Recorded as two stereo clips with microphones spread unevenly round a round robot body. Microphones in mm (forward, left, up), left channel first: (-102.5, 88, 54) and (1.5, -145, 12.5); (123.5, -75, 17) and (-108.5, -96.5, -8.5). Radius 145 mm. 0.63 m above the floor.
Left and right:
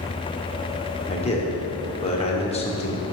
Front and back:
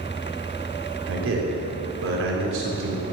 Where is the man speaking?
175° right, 2 m.